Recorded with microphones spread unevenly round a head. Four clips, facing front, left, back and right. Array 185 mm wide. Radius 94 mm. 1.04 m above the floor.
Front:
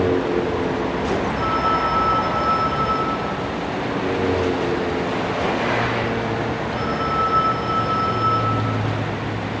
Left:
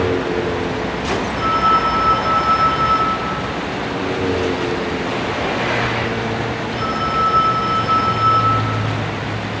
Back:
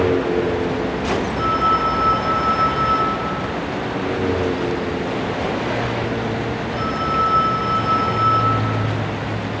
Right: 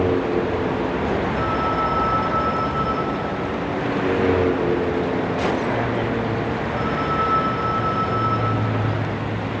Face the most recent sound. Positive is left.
turn(degrees=35)